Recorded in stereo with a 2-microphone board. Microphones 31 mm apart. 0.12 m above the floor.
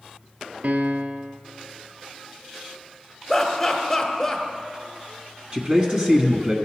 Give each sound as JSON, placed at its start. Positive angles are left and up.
{"t": 0.6, "sound": "a piano", "side_deg": -60, "distance_m": 0.5}
{"t": 3.3, "sound": "laughter", "side_deg": 10, "distance_m": 1.2}
{"t": 5.5, "sound": "a man speaking", "side_deg": -25, "distance_m": 1.4}